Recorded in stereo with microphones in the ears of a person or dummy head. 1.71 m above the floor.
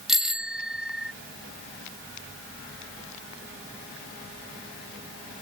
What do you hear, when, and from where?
0.1 s a bicycle bell: 5° right (ahead or behind)